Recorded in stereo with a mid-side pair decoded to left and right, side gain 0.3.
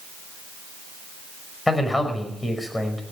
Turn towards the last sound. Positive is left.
turn(degrees=25)